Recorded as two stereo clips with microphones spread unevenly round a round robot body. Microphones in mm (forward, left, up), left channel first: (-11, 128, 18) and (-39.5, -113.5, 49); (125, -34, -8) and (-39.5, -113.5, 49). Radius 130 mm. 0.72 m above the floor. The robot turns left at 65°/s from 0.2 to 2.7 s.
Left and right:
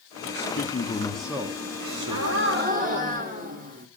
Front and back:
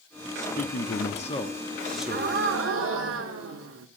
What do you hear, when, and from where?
0.3 s a man speaking: 55° left, 1.3 m; by 2.4 s 80° right, 1.3 m
1.8 s a gasp: 95° right, 1.9 m; by 3.9 s 155° right, 1.9 m